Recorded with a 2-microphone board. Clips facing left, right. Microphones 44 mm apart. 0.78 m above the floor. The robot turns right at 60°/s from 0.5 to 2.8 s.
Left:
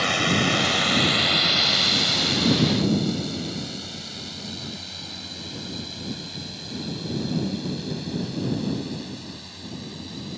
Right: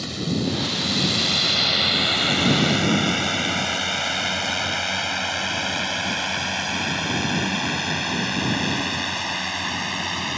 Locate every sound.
0.0 s a drone: 65° left (ahead or behind); by 10.4 s 80° right